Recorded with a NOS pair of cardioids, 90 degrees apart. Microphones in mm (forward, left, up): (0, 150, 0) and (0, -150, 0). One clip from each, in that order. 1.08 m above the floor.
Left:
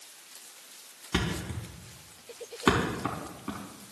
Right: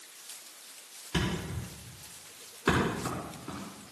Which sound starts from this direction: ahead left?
A thud, at 1.1 s.